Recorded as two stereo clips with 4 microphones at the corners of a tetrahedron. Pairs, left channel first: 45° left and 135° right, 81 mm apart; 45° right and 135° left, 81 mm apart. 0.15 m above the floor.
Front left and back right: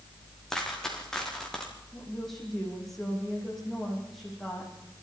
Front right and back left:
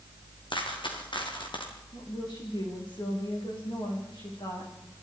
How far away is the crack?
No crack in this recording.